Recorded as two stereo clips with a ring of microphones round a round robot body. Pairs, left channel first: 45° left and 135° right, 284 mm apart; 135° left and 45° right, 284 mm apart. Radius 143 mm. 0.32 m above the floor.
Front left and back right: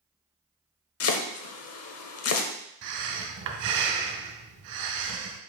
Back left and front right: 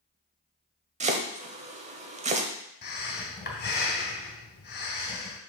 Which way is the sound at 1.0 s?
20° left.